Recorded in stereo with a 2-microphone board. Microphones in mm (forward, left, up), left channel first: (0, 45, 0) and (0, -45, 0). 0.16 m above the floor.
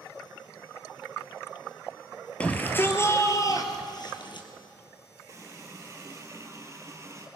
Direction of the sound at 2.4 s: 15° left (ahead or behind).